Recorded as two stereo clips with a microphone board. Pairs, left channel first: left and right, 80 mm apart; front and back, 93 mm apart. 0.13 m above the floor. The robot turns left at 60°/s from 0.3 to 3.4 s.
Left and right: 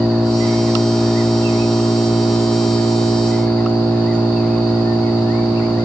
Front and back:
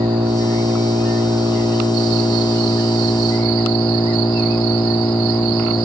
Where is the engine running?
145° right, 1.9 m; by 5.8 s 25° left, 1.9 m.